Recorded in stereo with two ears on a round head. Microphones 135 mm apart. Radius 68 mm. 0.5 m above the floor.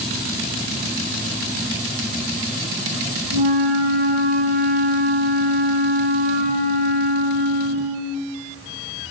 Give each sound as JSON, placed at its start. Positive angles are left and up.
{"t": 3.3, "sound": "a flute", "side_deg": -65, "distance_m": 9.0}